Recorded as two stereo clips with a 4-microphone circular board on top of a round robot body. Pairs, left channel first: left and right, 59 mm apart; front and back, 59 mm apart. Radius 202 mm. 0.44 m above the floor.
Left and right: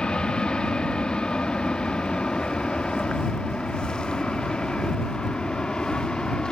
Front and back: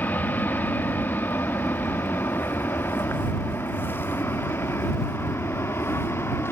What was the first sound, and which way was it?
An aircraft, 25° left.